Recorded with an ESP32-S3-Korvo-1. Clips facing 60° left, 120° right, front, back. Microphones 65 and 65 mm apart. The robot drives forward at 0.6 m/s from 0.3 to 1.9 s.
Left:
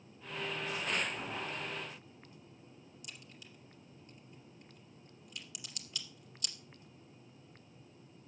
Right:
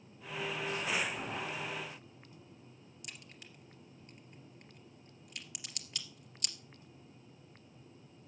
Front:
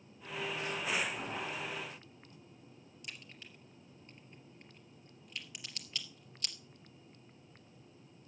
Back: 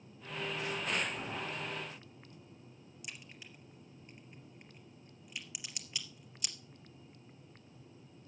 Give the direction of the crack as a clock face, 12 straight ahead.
3 o'clock.